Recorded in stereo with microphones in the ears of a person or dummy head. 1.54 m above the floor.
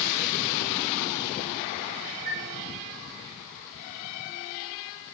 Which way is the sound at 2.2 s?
50° right (ahead or behind).